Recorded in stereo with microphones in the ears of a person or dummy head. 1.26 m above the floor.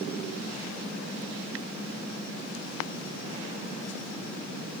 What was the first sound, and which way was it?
Only background noise.